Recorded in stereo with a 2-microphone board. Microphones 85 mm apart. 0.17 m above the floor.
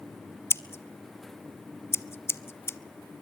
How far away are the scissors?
About 0.8 m.